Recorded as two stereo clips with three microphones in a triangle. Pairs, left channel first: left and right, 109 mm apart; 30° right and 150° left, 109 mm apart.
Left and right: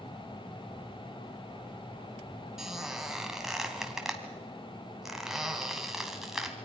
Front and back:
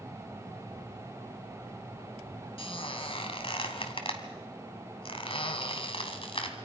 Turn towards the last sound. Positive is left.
turn(degrees=-5)